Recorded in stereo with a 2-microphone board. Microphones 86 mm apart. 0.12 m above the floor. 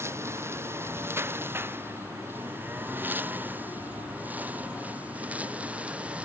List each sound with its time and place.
0.0 s a lawn mower: 30° right (ahead or behind); by 6.3 s 15° right (ahead or behind)